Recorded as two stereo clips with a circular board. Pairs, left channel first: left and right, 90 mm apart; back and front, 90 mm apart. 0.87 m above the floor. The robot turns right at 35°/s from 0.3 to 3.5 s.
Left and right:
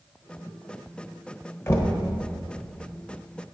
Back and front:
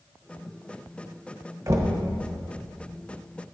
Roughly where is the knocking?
Ahead left.